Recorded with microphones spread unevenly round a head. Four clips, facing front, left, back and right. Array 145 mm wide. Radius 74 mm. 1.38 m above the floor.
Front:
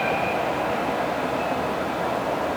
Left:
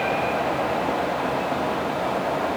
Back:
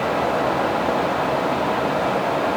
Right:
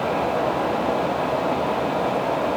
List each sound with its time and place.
Only background noise.